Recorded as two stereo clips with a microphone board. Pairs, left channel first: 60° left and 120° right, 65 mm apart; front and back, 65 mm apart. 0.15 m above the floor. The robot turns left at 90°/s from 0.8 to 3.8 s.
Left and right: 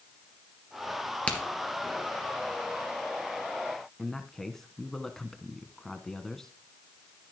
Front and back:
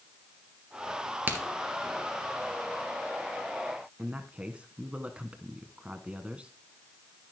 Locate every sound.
1.3 s a crack: 130° left, 3 m; by 1.4 s 120° left, 3 m
4.0 s a man speaking: 135° left, 1.2 m